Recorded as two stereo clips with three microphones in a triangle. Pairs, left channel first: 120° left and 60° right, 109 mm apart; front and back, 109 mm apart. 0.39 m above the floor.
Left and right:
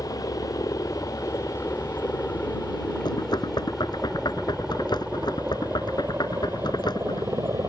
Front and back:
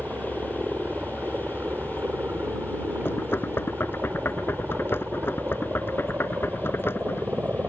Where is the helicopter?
120° left; by 7.7 s 110° right.